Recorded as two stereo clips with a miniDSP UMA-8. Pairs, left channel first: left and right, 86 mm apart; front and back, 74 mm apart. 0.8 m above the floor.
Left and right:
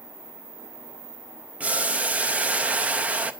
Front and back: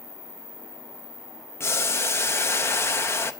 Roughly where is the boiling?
Ahead right.